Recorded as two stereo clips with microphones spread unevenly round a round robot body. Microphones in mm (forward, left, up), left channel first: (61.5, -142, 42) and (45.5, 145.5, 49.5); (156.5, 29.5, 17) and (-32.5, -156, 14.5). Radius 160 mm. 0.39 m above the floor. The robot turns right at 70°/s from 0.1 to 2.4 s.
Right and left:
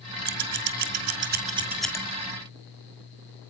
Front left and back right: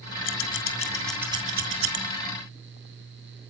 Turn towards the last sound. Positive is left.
turn(degrees=-135)